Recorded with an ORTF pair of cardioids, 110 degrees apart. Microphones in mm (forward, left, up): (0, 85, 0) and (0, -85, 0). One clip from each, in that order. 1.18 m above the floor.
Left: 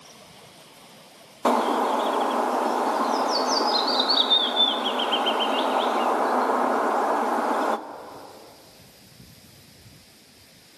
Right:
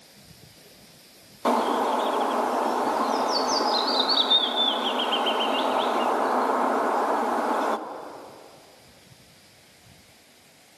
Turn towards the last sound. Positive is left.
turn(degrees=15)